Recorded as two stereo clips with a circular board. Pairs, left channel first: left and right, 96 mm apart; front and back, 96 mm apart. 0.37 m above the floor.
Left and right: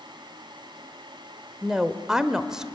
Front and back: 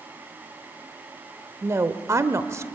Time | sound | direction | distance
1.6 | a woman speaking | 165° right | 1.0 m